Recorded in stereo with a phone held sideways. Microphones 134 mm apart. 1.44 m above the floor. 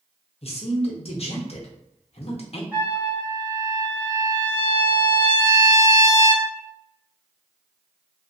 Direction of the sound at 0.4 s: 50° left (ahead or behind).